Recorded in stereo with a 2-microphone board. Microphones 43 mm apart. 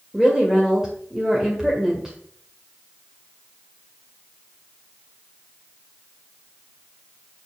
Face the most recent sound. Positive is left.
turn(degrees=-10)  # may be behind; listen again after turning